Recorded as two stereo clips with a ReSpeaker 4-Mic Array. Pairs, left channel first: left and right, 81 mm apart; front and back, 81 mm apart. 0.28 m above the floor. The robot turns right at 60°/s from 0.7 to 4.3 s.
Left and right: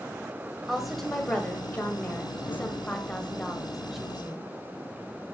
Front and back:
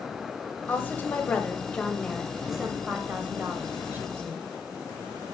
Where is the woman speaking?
10° right, 1.5 m; by 4.5 s 155° right, 1.5 m.